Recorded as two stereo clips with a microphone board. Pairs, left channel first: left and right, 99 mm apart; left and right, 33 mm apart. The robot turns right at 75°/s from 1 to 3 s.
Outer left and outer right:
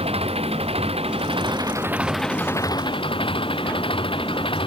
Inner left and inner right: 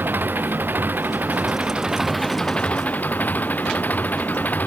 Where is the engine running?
90° right; by 4.7 s 60° left.